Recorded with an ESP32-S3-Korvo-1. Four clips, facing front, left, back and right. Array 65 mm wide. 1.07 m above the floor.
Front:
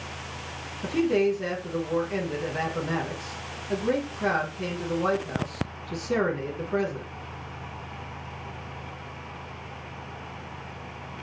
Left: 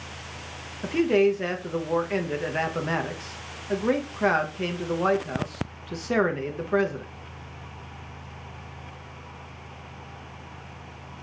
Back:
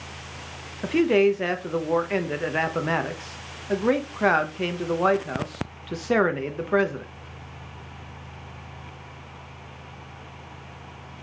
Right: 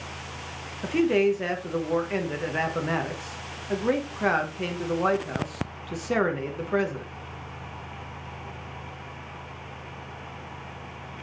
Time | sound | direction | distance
0.8 | a man speaking | 175° left | 0.5 m